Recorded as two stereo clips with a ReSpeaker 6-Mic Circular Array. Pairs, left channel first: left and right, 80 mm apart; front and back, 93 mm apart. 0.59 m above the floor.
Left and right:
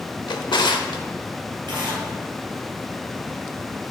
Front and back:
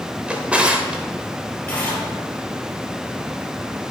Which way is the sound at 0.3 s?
105° left.